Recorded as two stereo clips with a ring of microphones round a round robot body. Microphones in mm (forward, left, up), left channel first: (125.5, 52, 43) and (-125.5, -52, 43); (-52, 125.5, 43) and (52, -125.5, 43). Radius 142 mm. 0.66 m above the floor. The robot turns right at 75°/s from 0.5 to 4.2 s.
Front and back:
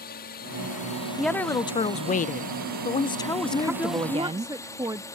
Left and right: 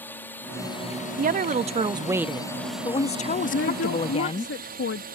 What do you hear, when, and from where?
0.0 s a drone: 35° left; by 5.2 s 50° right
1.2 s a woman speaking: 70° right; by 4.5 s 155° left
3.5 s a woman speaking: 80° left; by 5.0 s 130° left